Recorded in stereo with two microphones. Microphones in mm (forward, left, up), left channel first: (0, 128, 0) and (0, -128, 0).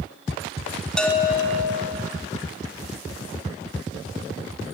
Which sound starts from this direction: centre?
A bell, at 1.0 s.